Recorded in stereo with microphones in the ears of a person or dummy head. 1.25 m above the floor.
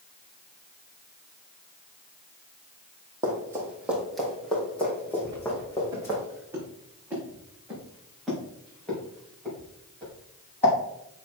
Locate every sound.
3.2 s running footsteps: 15° right (ahead or behind), 2.5 m; by 6.2 s 15° left (ahead or behind), 5 m
5.2 s footsteps: 25° right (ahead or behind), 3.5 m; by 10.7 s 10° left (ahead or behind), 7.5 m